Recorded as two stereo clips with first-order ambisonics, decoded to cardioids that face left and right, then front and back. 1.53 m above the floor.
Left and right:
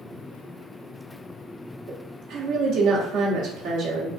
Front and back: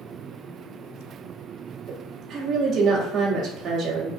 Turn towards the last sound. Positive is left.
turn(degrees=-115)